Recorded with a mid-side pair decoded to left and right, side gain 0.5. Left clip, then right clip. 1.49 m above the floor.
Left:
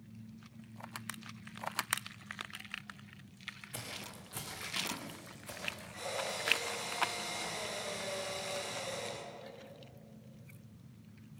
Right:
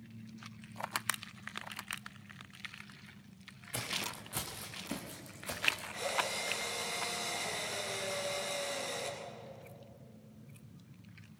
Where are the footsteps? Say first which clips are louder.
Right 12 dB; 25° right, 6 m; by 5.9 s 40° right, 7 m.